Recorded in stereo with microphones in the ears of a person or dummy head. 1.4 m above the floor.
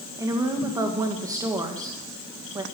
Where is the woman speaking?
15° right (ahead or behind), 2.0 m.